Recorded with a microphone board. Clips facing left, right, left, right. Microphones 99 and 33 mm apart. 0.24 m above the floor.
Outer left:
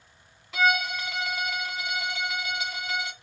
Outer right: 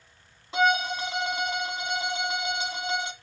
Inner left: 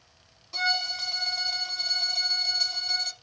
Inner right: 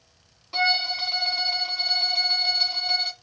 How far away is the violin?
About 0.7 m.